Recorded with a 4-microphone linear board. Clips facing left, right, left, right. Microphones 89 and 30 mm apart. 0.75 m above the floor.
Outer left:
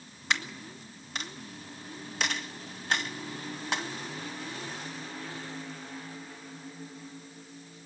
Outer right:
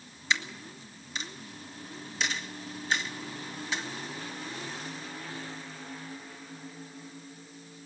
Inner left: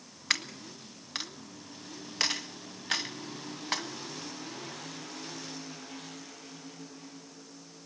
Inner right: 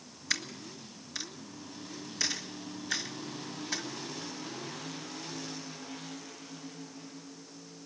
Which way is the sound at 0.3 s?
60° left (ahead or behind).